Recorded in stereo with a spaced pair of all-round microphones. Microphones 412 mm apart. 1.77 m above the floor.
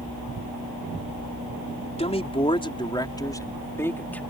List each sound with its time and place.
2.0 s a man speaking: 15° left (ahead or behind); by 4.2 s 5° left (ahead or behind)